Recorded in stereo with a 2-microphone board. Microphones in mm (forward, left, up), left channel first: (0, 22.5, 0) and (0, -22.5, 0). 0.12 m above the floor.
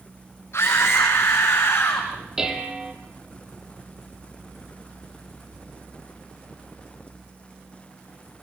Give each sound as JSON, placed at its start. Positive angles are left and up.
{"t": 0.5, "sound": "a scream", "side_deg": 65, "distance_m": 5.0}
{"t": 2.4, "sound": "dishes clattering", "side_deg": -10, "distance_m": 2.0}